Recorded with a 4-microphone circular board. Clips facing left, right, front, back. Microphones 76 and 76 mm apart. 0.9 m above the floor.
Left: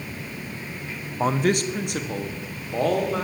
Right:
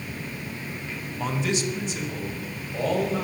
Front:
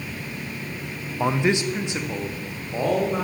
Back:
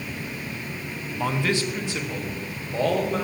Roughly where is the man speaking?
Ahead left.